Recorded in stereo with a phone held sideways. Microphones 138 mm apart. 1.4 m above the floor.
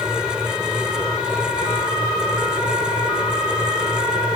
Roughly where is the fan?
Centre.